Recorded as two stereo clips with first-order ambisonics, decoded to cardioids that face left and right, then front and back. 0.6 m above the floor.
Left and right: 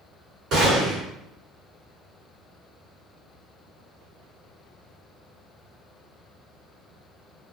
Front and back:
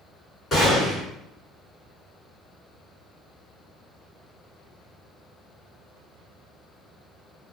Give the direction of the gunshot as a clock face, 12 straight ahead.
2 o'clock.